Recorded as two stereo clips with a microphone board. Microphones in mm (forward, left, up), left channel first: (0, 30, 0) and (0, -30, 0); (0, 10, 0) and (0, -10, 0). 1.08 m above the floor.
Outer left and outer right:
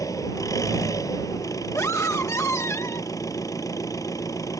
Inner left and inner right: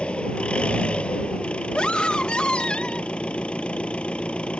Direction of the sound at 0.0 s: 70° left (ahead or behind).